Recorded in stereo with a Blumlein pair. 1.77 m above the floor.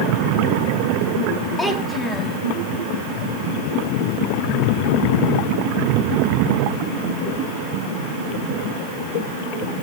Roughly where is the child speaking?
Ahead.